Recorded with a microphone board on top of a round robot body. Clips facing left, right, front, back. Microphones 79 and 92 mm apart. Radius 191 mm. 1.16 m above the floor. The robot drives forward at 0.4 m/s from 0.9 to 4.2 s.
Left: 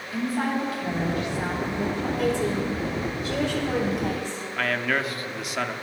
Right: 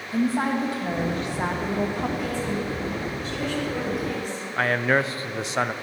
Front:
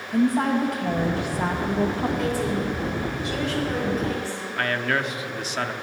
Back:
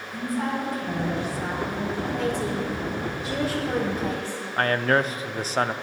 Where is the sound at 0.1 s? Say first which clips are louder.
Right 3 dB, front 7 dB; 30° right, 1.4 m; by 2.1 s 45° right, 1.0 m.